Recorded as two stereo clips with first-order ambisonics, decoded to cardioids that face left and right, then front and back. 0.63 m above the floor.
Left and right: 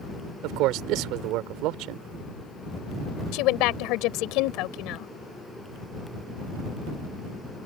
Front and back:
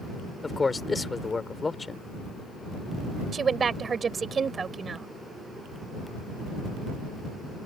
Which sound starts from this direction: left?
A woman speaking, at 3.3 s.